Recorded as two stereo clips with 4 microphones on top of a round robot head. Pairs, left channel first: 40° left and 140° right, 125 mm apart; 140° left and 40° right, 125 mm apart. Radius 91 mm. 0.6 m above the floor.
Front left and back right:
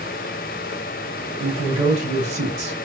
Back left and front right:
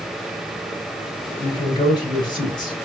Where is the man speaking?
170° right, 3.5 m.